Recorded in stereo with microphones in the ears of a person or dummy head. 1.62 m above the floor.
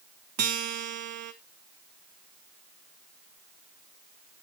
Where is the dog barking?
No dog barking in this recording.